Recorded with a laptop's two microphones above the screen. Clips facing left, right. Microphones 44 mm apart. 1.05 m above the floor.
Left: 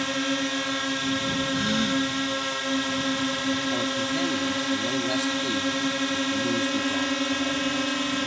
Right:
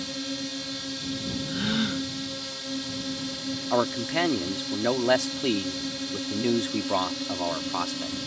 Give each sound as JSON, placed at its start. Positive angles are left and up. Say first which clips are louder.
{"t": 0.0, "sound": "a drone", "louder": "left 7 dB", "side_deg": 55}
{"t": 1.5, "sound": "a gasp", "louder": "left 1 dB", "side_deg": -10}
{"t": 3.7, "sound": "a man speaking", "louder": "right 1 dB", "side_deg": -85}